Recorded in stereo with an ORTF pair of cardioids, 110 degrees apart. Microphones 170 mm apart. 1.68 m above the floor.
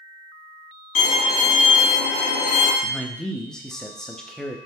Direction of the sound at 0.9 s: 55° left.